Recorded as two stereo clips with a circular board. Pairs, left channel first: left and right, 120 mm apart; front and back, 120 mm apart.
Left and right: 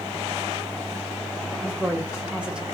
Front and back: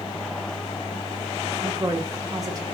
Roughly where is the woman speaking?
Behind.